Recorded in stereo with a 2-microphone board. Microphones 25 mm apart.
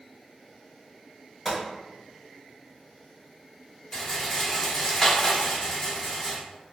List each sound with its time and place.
1.4 s a gunshot: 5° left (ahead or behind), 1.5 m
3.9 s a rattle: 20° left (ahead or behind), 0.8 m